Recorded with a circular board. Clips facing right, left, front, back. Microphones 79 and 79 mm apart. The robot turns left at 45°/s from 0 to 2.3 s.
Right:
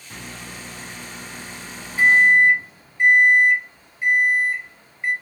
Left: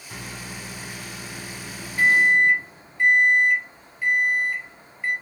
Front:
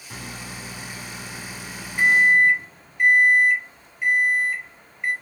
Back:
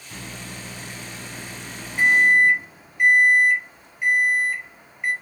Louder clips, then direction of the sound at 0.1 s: Even, front 1 dB; 5° left.